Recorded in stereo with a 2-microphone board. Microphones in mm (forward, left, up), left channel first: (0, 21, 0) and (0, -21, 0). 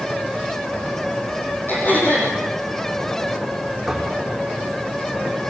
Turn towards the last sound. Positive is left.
turn(degrees=-5)  # may be behind; listen again after turning